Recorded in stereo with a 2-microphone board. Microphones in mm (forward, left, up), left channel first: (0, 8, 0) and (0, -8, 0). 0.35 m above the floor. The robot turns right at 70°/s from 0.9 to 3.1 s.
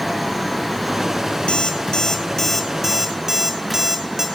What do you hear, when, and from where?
1.5 s an alarm clock: 65° left (ahead or behind), 0.9 m; by 4.3 s 40° right (ahead or behind), 0.9 m